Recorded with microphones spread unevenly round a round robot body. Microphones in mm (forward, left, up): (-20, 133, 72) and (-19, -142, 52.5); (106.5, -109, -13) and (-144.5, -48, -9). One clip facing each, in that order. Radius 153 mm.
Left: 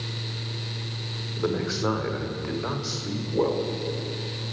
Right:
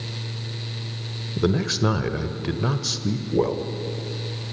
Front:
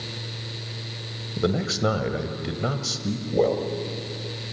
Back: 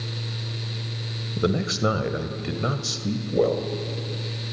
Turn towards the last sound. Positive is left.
turn(degrees=-110)